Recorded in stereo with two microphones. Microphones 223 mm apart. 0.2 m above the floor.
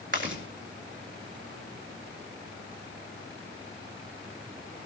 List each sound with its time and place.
0.1 s chewing: 60° right (ahead or behind), 3.5 m